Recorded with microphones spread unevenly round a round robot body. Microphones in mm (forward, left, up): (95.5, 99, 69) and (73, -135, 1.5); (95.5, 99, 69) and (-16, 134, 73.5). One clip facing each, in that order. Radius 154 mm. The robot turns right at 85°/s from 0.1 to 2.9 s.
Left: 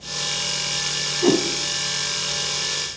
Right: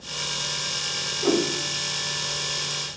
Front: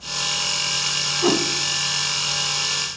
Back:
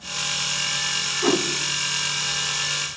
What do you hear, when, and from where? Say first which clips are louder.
1.2 s a whoosh: left 4 dB, front 1 dB; 60° left, 3.5 m; by 1.4 s 75° left, 3.5 m